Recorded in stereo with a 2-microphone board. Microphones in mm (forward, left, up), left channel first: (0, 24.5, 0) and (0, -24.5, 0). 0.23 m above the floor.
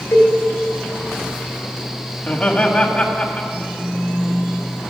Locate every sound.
0.1 s a cowbell: 70° left (ahead or behind), 2.5 m
2.2 s laughter: 20° left (ahead or behind), 1.2 m
3.5 s a phone buzzing: 55° right (ahead or behind), 4.5 m